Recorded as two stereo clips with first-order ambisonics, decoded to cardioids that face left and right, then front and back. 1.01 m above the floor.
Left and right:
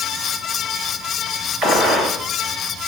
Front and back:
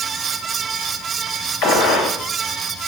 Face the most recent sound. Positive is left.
turn(degrees=-35)